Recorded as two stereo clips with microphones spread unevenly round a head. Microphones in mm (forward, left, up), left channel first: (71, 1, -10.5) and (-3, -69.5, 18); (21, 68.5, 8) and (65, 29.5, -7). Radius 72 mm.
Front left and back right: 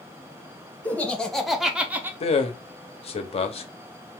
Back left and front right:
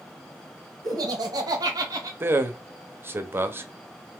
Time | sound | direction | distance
0.8 | laughter | 40° right | 1.0 m
2.2 | a man speaking | 15° left | 0.7 m